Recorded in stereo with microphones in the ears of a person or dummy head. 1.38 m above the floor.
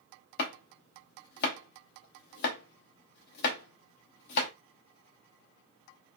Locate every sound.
0.4 s chopping: 60° left (ahead or behind), 0.7 m